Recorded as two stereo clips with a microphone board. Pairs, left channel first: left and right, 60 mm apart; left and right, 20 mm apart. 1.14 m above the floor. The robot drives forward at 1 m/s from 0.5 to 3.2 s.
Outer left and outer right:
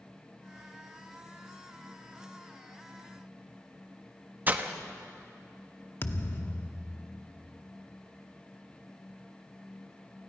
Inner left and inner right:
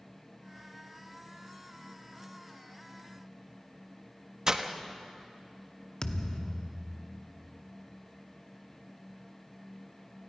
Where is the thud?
40° left (ahead or behind), 1.0 m.